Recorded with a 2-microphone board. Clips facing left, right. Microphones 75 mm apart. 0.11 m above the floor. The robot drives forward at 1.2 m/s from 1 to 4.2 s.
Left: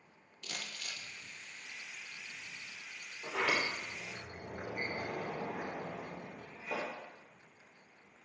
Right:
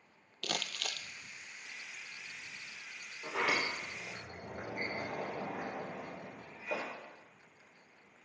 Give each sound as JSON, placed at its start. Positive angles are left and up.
{"t": 0.4, "sound": "crumpling", "side_deg": -75, "distance_m": 0.6}
{"t": 3.2, "sound": "a sliding door", "side_deg": -10, "distance_m": 3.0}